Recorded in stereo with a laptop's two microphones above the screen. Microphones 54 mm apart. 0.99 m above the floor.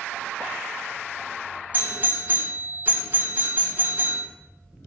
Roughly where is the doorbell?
Right.